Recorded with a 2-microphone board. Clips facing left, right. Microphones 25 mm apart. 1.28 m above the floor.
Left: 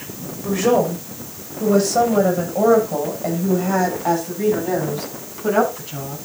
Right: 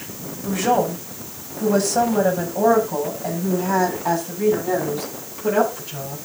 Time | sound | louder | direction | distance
0.4 | a woman speaking | left 2 dB | 25° left (ahead or behind) | 6 m